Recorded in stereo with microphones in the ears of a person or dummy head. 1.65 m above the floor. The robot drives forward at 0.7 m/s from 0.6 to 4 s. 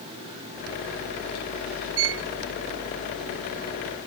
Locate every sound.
2.0 s a violin: 80° right